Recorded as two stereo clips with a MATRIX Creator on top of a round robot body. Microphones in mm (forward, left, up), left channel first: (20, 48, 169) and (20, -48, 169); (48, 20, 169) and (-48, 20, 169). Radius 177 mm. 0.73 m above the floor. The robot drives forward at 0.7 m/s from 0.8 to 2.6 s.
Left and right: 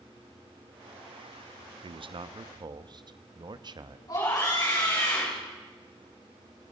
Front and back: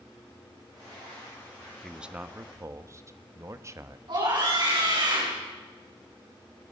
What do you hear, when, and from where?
1.8 s a man speaking: 90° right, 1.0 m; by 4.0 s 125° right, 1.1 m
4.1 s a scream: 140° left, 7 m